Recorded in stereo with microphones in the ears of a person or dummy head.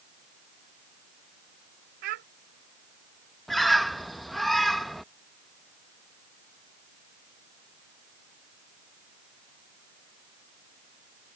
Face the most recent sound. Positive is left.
turn(degrees=5)  # may be behind; listen again after turning